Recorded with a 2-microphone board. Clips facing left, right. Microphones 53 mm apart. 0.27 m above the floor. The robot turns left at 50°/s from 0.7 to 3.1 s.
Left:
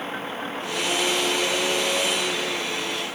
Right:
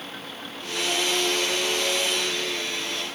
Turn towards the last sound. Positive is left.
turn(degrees=20)  # may be behind; listen again after turning